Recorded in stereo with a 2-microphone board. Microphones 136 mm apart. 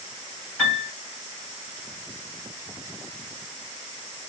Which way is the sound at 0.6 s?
15° left (ahead or behind).